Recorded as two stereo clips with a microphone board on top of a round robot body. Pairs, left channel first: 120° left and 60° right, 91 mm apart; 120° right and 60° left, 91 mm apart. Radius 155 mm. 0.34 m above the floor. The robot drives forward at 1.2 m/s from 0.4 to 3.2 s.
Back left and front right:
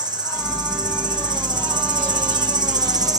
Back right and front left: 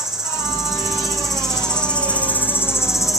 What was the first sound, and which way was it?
An insect, 25° right.